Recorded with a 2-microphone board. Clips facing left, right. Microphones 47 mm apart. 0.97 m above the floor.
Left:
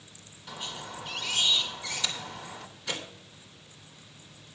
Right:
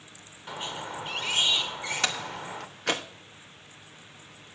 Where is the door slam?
75° right (ahead or behind), 1.0 m.